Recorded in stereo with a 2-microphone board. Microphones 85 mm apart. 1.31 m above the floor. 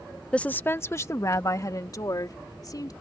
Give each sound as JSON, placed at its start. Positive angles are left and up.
{"t": 0.3, "sound": "a woman speaking", "side_deg": 10}